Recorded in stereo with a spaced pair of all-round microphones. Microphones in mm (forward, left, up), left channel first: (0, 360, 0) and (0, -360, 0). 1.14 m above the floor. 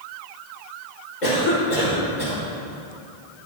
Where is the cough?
65° left (ahead or behind), 1.8 m.